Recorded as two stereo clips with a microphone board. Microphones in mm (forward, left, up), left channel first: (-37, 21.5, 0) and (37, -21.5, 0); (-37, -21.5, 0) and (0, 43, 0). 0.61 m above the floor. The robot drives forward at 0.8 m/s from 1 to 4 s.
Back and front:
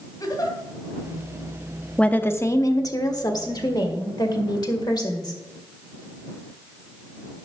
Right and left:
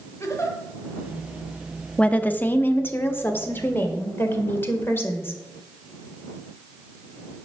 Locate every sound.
0.2 s a giggle: 170° right, 2 m
2.0 s a woman speaking: 160° right, 0.6 m; by 5.4 s straight behind, 1.9 m